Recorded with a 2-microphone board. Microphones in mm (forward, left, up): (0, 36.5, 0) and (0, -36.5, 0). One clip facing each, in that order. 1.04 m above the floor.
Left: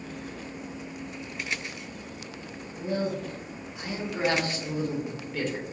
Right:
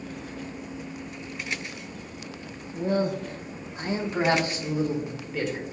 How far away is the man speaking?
About 0.7 m.